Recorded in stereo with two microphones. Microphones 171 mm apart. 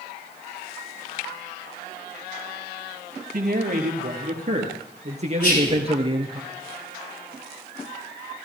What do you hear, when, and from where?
3.3 s a man speaking: 60° right (ahead or behind), 3 m; by 6.4 s 30° right (ahead or behind), 2.5 m
5.4 s whispering: 75° left (ahead or behind), 9 m